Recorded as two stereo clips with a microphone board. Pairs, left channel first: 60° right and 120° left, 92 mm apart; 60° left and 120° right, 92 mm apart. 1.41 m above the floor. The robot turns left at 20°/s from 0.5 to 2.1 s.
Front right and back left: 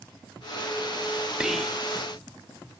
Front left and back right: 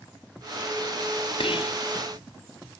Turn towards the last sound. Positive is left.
turn(degrees=25)